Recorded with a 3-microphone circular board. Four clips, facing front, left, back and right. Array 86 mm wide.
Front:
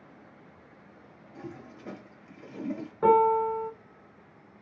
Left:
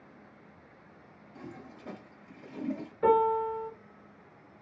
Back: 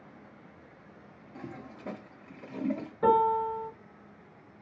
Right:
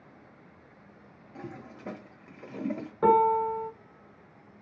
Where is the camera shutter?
I don't hear a camera shutter.